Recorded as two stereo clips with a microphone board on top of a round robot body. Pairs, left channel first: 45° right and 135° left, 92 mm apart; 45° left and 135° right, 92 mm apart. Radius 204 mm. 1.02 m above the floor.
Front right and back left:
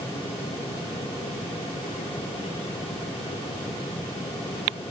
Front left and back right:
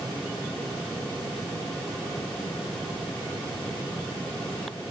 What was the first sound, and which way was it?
Only background noise.